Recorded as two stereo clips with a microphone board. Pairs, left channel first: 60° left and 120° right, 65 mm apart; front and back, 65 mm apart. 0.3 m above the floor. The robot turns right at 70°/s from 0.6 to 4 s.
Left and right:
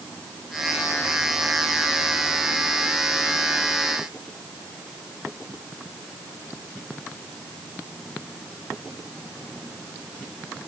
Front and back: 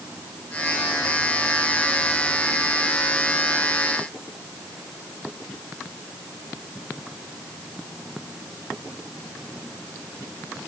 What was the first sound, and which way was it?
Only background noise.